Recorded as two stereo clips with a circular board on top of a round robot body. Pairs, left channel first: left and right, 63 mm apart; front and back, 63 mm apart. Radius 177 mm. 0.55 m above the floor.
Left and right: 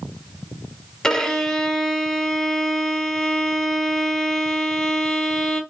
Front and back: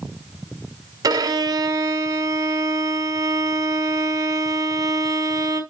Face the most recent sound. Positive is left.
turn(degrees=170)